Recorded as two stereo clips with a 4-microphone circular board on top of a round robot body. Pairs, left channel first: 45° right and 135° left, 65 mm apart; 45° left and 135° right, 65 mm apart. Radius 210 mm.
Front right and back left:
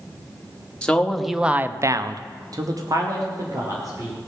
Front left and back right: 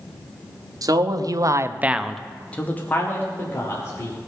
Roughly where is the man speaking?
Behind right.